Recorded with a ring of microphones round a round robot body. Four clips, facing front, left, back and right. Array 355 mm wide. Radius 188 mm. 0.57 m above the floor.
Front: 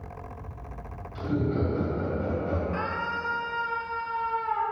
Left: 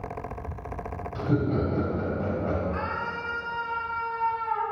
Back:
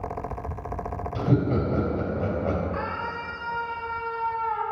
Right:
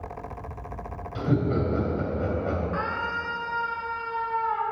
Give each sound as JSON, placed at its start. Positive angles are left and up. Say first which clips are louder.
{"t": 1.1, "sound": "laughter", "louder": "right 1 dB, back 3 dB", "azimuth_deg": -150, "distance_m": 3.0}
{"t": 2.7, "sound": "a scream", "louder": "right 2 dB, even", "azimuth_deg": -30, "distance_m": 3.5}